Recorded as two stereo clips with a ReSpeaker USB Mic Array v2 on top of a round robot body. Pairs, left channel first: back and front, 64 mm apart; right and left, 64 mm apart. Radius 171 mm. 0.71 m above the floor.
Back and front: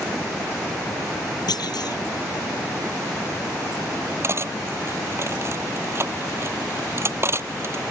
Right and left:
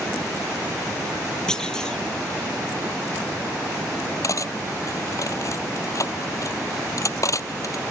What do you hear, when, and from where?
1.5 s a clunk: 170° right
4.2 s cutlery clinking: 50° right